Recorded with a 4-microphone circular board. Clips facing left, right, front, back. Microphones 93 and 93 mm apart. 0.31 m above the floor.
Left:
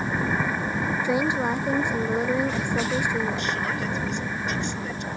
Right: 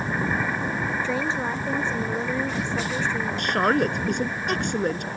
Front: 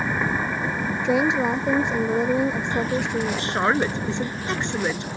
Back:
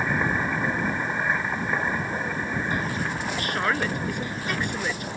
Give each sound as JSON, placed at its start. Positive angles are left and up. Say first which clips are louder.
{"t": 1.0, "sound": "a woman speaking", "louder": "left 3 dB, front 6 dB", "azimuth_deg": 15}
{"t": 3.4, "sound": "a woman speaking", "louder": "right 6 dB, front 3 dB", "azimuth_deg": -65}